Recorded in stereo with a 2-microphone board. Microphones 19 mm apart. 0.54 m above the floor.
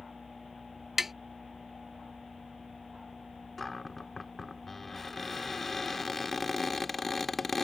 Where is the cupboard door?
10° left (ahead or behind).